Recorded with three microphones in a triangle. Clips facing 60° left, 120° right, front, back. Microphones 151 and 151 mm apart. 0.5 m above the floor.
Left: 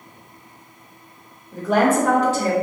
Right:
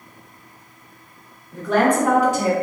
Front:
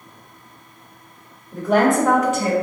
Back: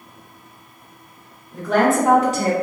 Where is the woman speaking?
20° left, 0.9 m; by 2.5 s 175° left, 1.1 m.